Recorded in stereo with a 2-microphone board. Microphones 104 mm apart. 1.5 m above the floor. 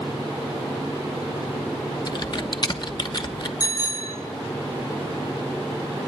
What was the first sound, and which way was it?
Typing on a keyboard, 45° left (ahead or behind).